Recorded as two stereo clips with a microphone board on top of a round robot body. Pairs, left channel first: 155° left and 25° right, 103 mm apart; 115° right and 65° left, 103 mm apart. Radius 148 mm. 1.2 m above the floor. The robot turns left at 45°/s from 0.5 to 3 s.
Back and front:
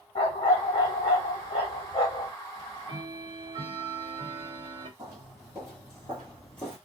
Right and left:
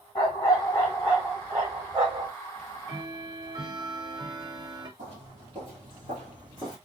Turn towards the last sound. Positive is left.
turn(degrees=85)